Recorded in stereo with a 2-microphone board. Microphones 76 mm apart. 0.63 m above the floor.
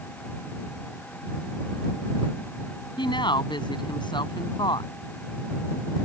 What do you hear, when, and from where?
3.0 s a woman speaking: 80° left